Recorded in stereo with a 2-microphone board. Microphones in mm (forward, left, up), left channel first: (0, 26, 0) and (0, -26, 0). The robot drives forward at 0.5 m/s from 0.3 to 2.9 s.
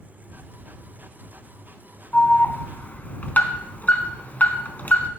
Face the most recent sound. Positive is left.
turn(degrees=35)  # may be behind; listen again after turning